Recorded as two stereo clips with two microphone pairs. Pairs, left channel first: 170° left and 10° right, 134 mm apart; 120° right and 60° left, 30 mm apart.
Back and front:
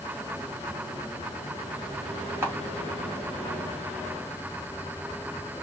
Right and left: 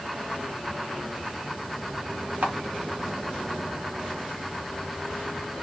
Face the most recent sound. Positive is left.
turn(degrees=65)